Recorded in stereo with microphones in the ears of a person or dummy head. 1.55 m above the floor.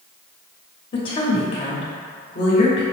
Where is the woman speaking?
40° left (ahead or behind), 1.2 m.